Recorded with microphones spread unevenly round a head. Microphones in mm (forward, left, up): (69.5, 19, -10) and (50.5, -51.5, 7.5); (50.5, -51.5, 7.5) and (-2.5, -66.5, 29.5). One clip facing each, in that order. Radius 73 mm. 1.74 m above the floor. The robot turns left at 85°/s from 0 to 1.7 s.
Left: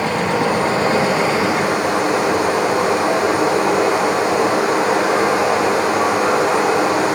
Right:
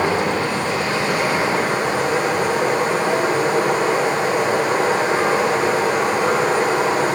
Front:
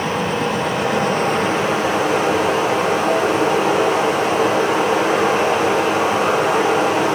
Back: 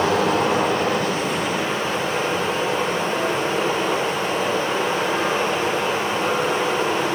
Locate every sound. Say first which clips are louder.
0.0 s running water: left 1 dB, back 1 dB; 170° right, 10 m; by 7.1 s 50° left, 10 m